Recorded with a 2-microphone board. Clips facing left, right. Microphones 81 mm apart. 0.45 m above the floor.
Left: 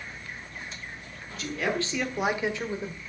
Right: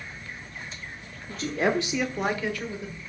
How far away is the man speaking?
About 1.3 m.